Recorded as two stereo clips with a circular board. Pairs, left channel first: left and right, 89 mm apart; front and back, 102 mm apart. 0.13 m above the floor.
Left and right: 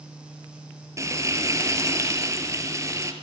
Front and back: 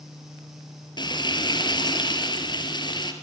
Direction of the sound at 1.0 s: 40° right.